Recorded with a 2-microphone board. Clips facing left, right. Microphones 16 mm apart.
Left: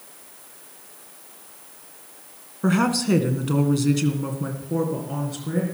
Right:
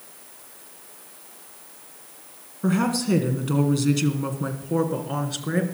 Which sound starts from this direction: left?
A woman speaking, at 2.6 s.